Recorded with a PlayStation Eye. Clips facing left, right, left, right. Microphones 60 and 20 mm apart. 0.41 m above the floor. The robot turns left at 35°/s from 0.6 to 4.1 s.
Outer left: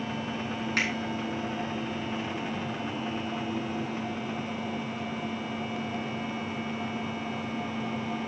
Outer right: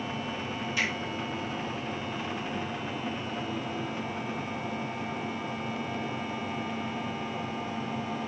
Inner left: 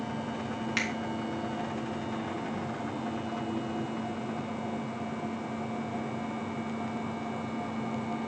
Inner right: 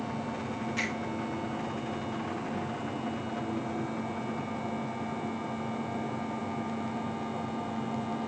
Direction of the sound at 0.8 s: 60° left (ahead or behind).